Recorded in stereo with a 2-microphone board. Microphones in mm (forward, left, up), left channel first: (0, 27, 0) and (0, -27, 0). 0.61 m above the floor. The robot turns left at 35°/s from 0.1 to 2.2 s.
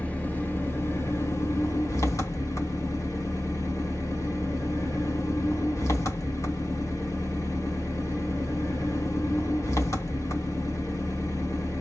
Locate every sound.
0.0 s an engine running: 155° left, 1.6 m; by 11.8 s 80° left, 1.6 m